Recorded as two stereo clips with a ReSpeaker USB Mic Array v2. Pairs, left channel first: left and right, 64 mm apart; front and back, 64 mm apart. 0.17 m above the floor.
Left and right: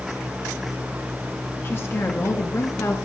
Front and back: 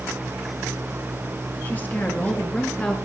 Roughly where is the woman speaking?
Ahead left.